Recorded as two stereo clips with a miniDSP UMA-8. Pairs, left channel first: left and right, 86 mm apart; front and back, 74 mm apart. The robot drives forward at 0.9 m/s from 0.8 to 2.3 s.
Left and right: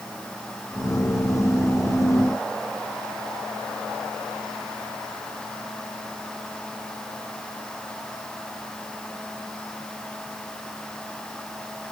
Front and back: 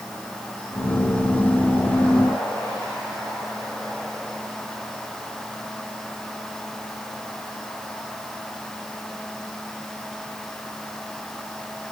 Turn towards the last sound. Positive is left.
No sound to turn to.